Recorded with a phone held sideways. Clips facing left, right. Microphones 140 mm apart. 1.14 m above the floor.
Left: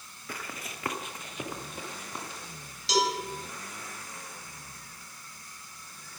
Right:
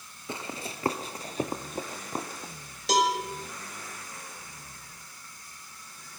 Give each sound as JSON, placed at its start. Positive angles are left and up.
{"t": 0.3, "sound": "running footsteps", "side_deg": -25, "distance_m": 1.2}
{"t": 2.9, "sound": "a cowbell", "side_deg": -55, "distance_m": 4.5}